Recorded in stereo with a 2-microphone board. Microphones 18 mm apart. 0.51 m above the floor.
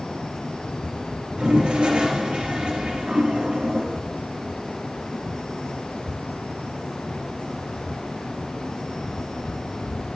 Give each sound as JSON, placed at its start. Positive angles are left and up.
{"t": 1.4, "sound": "a toilet flushing", "side_deg": -60, "distance_m": 2.5}